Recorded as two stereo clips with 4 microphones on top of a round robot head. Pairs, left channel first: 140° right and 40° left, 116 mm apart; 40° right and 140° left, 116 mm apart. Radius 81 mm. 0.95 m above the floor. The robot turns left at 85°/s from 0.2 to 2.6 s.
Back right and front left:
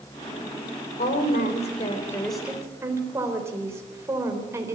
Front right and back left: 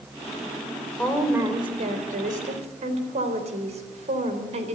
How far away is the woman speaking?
About 4 m.